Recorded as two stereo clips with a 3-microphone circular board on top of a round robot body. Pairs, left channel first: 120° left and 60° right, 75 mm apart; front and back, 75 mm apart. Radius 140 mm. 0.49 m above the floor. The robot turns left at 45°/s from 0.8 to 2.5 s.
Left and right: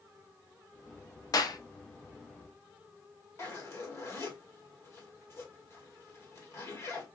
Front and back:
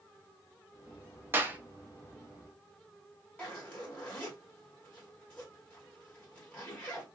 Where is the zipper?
70° left, 1.6 m.